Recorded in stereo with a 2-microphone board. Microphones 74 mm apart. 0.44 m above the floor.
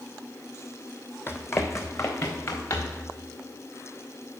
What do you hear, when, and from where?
1.3 s running footsteps: 30° left (ahead or behind), 0.9 m; by 3.0 s 50° left (ahead or behind), 3 m